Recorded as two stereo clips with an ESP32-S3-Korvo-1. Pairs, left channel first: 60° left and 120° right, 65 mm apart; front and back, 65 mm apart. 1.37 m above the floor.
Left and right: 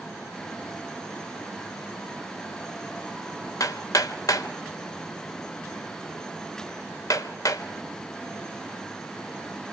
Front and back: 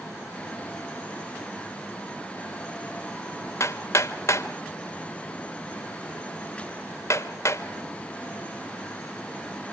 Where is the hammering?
35° left, 1.7 m.